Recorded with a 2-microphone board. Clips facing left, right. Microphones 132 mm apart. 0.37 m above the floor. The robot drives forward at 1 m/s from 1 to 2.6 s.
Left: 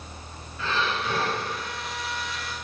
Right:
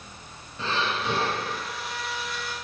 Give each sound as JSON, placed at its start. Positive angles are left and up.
{"t": 0.6, "sound": "breathing", "side_deg": -30, "distance_m": 3.0}